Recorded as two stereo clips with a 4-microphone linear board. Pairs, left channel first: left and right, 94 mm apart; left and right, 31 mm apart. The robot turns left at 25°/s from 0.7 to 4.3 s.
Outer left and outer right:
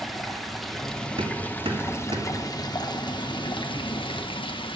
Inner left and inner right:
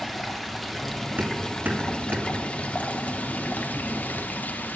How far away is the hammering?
About 2.5 m.